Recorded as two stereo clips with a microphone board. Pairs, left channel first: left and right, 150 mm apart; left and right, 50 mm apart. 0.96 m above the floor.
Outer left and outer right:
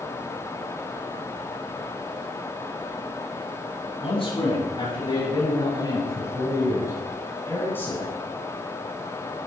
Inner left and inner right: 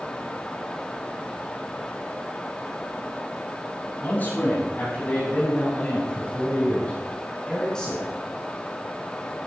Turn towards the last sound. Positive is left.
turn(degrees=10)  # may be behind; listen again after turning